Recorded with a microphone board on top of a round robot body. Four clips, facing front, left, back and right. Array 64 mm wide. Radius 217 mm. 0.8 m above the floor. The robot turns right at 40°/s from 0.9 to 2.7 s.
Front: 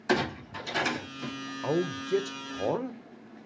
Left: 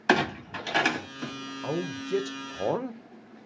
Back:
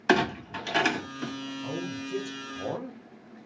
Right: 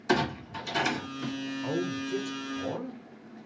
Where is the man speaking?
15° left, 0.7 m; by 3.0 s 60° left, 0.7 m.